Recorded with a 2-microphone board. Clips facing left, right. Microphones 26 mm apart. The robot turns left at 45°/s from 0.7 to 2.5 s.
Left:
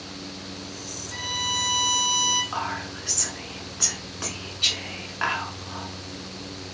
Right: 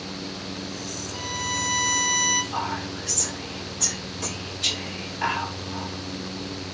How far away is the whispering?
About 1.4 m.